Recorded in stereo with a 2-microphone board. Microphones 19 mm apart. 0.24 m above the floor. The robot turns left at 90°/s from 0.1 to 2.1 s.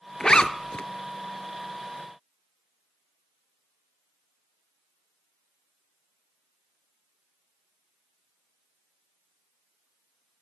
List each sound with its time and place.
0.2 s a zipper: 30° left (ahead or behind), 0.5 m; by 0.8 s 85° left, 0.5 m